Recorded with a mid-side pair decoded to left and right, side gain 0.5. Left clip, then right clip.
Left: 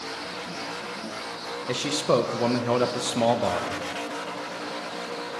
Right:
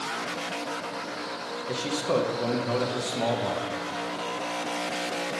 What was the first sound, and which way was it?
A man speaking, 40° left.